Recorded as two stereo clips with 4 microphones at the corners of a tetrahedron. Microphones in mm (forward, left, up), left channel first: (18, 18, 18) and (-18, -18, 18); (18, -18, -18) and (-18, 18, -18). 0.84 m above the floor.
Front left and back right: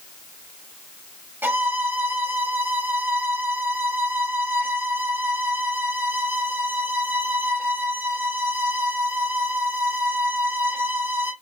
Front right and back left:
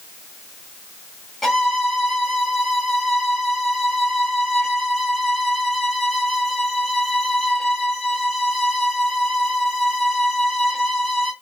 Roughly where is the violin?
Behind right.